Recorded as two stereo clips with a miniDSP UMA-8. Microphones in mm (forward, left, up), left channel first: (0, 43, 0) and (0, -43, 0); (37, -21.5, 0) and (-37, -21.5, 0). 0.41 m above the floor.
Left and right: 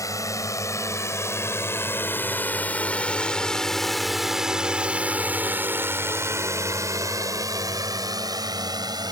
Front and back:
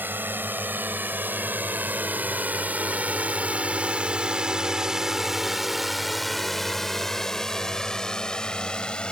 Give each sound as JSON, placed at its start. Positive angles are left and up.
{"t": 0.0, "sound": "a drone", "azimuth_deg": 125}